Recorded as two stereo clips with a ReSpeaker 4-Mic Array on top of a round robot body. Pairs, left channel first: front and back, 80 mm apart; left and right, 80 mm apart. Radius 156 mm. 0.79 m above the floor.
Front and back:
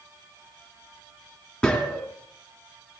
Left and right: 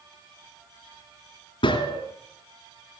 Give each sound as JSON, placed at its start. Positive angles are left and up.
{"t": 1.6, "sound": "a gunshot", "azimuth_deg": 80, "distance_m": 2.5}